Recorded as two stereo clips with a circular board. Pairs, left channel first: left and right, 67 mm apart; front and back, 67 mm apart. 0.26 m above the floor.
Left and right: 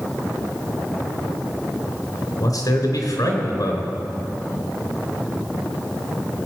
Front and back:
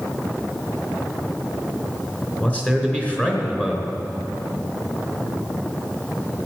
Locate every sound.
2.4 s a man speaking: 70° left, 3.5 m